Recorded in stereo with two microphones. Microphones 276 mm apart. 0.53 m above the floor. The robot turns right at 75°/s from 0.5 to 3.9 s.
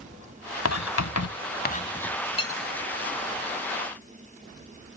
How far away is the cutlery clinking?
About 1.5 m.